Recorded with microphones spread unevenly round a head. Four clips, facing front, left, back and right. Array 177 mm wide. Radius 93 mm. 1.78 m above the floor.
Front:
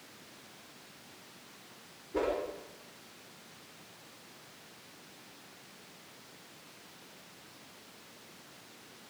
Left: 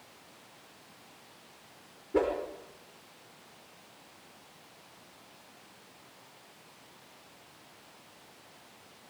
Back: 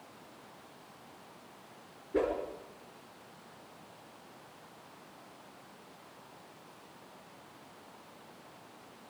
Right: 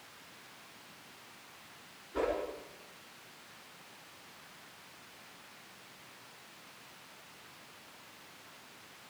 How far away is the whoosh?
About 5.5 m.